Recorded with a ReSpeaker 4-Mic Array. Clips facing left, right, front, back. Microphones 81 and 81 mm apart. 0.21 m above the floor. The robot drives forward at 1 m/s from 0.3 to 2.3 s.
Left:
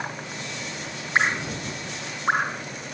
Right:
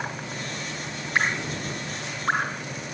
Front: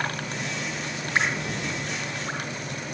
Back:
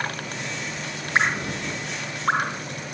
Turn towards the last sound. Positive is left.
turn(degrees=165)